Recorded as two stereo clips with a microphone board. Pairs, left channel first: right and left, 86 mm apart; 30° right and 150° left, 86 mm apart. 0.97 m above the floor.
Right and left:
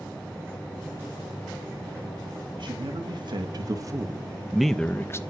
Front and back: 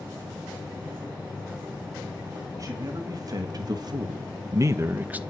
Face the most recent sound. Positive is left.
turn(degrees=-140)